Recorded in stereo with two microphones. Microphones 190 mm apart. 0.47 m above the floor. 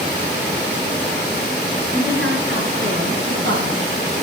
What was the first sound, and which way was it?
A woman speaking, 80° right.